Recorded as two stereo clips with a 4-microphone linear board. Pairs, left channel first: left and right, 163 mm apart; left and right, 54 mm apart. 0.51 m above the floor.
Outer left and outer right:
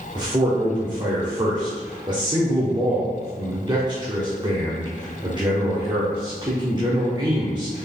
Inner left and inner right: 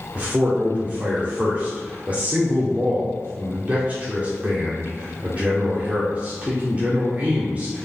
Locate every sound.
0.1 s a man speaking: 30° right (ahead or behind), 1.1 m